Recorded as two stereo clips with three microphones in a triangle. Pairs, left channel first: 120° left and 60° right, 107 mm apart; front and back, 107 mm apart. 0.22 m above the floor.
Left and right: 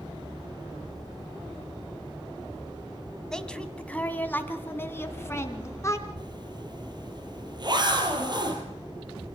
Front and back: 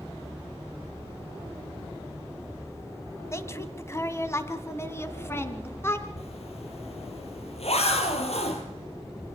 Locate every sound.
3.3 s a woman speaking: 40° left, 1.6 m; by 6.1 s 65° left, 2.5 m
6.2 s a zipper: 15° right, 3 m